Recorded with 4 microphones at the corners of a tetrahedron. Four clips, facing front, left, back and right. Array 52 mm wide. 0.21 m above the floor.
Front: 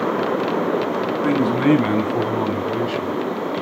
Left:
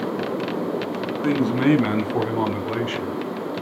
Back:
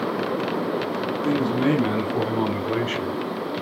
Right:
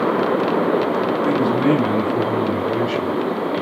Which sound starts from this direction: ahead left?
A man speaking, at 1.2 s.